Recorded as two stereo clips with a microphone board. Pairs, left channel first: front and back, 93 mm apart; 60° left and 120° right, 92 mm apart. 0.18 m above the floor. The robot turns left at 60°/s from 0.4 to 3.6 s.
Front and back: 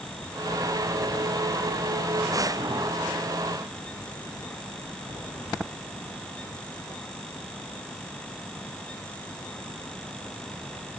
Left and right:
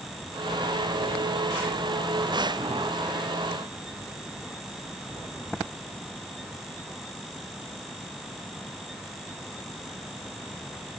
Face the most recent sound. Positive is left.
No sound to turn to.